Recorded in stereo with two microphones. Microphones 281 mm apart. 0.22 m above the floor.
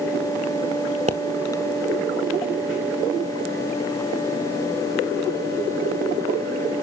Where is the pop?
25° right (ahead or behind), 0.8 m.